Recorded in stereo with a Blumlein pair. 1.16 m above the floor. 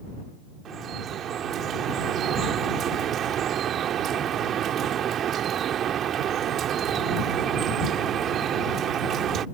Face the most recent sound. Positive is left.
turn(degrees=-30)